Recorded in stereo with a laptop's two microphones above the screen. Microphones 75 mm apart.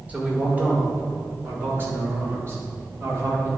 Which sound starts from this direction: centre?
A man speaking, at 0.1 s.